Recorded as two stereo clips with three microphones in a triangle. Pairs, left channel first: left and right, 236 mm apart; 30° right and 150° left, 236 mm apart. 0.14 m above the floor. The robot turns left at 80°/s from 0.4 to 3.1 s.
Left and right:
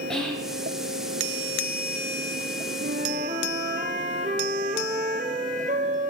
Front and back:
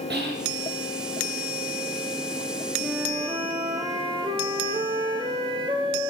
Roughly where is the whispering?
Behind.